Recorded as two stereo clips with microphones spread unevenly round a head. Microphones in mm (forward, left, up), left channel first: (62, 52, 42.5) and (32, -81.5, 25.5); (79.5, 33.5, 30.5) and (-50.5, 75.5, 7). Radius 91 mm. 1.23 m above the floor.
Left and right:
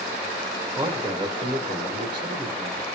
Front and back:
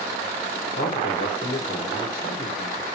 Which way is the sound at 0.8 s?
50° right.